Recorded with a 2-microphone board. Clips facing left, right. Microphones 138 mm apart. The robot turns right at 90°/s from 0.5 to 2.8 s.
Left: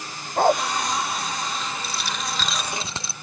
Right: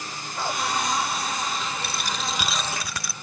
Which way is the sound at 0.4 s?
55° left (ahead or behind).